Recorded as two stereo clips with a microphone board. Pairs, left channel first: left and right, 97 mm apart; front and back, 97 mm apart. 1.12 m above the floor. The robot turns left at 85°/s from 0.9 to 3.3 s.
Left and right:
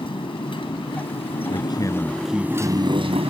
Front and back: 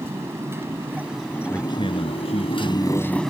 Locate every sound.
0.0 s a motorcycle: 115° left; by 3.3 s 90° right
1.5 s a man speaking: 65° left; by 3.2 s 85° right